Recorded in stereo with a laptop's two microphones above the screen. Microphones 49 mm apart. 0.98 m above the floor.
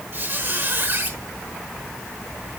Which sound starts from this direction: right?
A squeak, at 0.1 s.